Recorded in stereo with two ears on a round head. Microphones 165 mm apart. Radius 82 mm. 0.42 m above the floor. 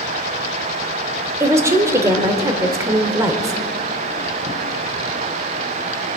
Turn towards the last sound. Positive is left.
turn(degrees=-15)  # may be behind; listen again after turning